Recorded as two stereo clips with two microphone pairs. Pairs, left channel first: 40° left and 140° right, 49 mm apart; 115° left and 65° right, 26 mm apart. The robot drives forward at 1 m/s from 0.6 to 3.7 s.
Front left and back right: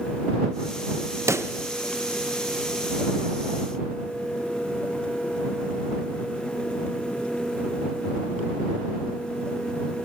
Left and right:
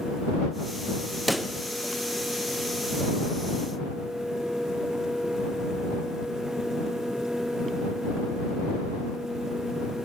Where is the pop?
150° right, 0.6 m; by 1.5 s 160° right, 0.9 m.